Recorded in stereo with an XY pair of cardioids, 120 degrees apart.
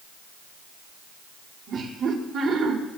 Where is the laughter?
60° right, 5.5 m.